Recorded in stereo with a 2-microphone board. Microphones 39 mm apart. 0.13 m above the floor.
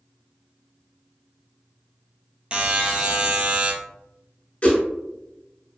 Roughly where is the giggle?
No giggle in this recording.